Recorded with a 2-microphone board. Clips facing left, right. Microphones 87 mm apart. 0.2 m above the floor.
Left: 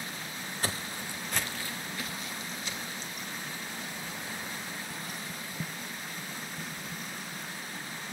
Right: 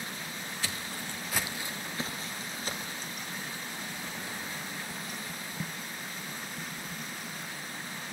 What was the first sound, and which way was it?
Footsteps, 40° left (ahead or behind).